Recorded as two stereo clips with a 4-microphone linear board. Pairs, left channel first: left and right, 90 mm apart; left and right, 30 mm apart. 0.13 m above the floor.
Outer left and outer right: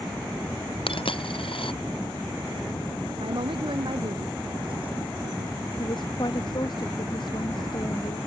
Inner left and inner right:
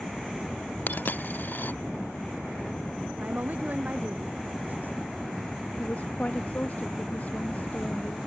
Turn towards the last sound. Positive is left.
turn(degrees=60)  # may be behind; listen again after turning